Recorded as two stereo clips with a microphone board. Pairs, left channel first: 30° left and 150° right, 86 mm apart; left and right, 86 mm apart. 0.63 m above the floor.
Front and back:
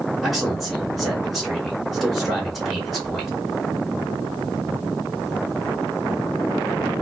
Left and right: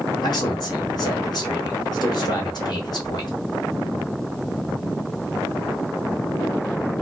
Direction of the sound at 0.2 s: 120° left.